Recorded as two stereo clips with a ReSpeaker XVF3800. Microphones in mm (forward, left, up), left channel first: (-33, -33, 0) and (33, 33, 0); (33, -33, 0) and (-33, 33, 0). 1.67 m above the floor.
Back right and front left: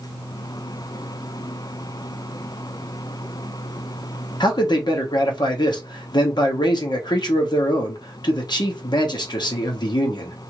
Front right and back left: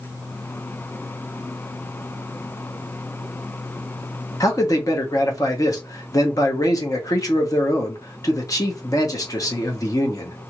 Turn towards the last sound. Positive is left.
turn(degrees=-95)